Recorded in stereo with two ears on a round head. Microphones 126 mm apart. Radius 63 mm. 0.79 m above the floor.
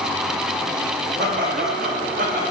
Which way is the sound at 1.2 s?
75° right (ahead or behind).